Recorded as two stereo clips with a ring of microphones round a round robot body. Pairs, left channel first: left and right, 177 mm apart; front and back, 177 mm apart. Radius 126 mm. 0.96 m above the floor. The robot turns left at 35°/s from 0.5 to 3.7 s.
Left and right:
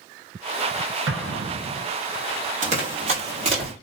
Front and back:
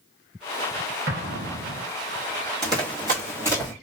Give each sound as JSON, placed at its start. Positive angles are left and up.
{"t": 1.1, "sound": "an explosion", "azimuth_deg": -125, "distance_m": 0.6}
{"t": 2.6, "sound": "running footsteps", "azimuth_deg": -120, "distance_m": 1.3}